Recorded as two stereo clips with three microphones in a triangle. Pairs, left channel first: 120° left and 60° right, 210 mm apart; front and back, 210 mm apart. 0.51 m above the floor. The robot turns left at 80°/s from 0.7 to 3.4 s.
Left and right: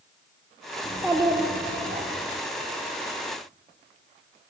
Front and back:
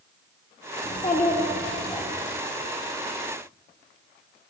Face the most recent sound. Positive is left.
turn(degrees=-175)